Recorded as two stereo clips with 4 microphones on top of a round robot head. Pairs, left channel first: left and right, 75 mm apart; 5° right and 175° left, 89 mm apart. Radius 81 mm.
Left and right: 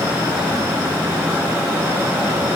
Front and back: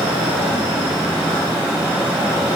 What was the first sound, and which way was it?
Only background noise.